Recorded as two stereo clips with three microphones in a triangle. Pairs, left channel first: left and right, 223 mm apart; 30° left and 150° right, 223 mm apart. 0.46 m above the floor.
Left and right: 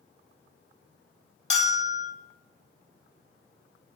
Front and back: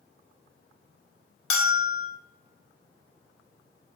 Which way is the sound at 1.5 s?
35° left.